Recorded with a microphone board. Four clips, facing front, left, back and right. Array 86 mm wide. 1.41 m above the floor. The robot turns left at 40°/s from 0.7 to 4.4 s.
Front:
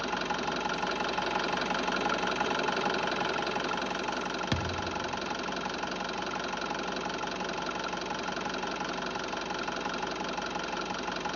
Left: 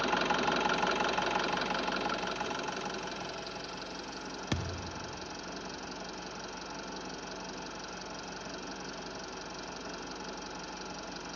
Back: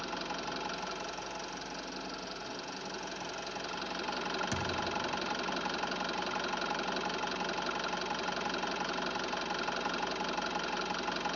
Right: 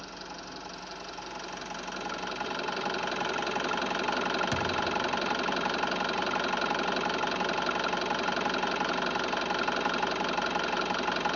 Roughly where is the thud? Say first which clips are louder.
Right 9 dB, front 2 dB; ahead.